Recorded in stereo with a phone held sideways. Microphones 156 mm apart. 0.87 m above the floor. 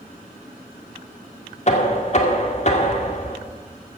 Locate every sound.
1.7 s knocking: 45° left (ahead or behind), 2.0 m